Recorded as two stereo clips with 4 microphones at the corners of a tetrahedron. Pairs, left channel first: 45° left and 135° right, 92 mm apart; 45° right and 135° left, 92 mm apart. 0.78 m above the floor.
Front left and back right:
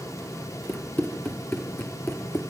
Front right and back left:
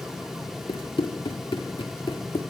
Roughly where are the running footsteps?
Ahead right.